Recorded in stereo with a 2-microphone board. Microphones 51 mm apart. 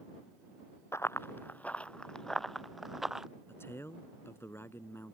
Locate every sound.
0.9 s running footsteps: 60° left (ahead or behind); by 3.3 s 5° right (ahead or behind)
3.5 s a man speaking: 55° left (ahead or behind)